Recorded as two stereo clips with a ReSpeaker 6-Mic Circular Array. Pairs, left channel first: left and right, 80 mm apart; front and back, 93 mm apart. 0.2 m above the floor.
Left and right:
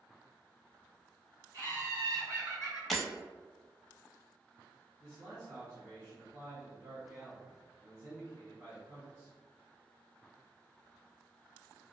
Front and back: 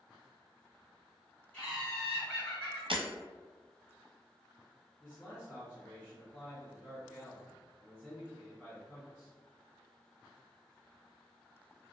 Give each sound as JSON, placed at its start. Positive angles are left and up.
{"t": 1.5, "sound": "laughter", "azimuth_deg": -50, "distance_m": 1.7}
{"t": 2.9, "sound": "breaking glass", "azimuth_deg": 175, "distance_m": 0.7}
{"t": 5.0, "sound": "a man speaking", "azimuth_deg": -60, "distance_m": 1.4}